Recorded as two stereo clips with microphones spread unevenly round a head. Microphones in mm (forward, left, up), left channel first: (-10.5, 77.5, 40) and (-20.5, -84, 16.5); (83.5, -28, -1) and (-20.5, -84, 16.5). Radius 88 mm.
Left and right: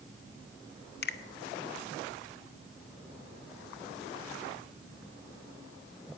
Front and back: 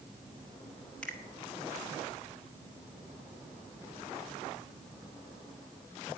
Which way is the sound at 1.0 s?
115° left.